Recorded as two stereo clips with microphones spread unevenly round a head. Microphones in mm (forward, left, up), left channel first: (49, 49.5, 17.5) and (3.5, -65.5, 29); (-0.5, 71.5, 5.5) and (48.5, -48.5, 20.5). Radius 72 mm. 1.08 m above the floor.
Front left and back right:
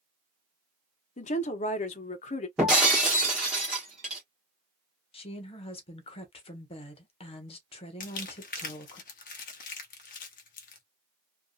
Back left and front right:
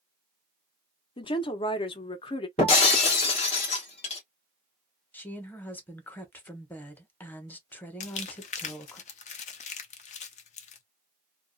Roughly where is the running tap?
No running tap in this recording.